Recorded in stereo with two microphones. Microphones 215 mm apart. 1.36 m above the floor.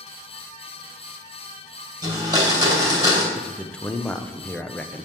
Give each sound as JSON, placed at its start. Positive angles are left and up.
{"t": 2.0, "sound": "a blender", "side_deg": -20, "distance_m": 2.5}
{"t": 3.4, "sound": "a man speaking", "side_deg": 5, "distance_m": 0.6}